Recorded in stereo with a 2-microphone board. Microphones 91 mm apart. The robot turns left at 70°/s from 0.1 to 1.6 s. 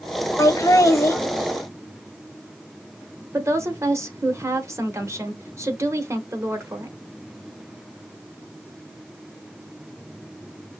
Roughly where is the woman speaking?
Right.